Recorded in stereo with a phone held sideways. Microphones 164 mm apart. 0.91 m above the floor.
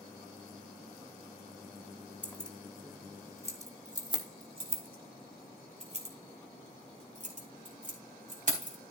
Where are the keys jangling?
10° left (ahead or behind), 1.2 m; by 8.8 s 55° right (ahead or behind), 4.5 m.